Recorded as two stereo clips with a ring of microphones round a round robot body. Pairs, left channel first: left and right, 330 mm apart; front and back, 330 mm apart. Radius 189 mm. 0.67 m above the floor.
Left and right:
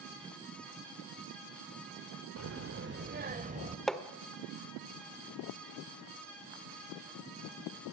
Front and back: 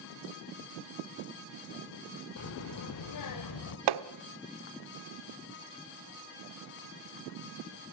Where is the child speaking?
45° right, 1.6 m; by 3.8 s 20° right, 2 m.